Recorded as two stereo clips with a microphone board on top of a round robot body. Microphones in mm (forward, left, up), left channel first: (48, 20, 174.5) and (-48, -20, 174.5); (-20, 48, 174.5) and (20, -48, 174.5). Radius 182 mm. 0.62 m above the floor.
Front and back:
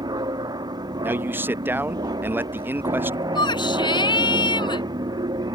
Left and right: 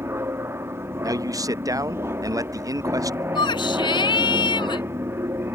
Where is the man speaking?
100° right.